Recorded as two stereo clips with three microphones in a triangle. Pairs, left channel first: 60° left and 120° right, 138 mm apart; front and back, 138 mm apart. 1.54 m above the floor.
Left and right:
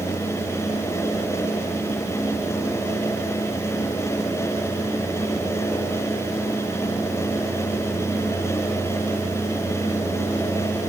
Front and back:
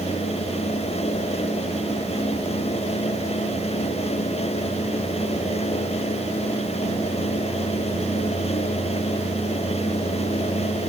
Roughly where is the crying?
I don't hear crying.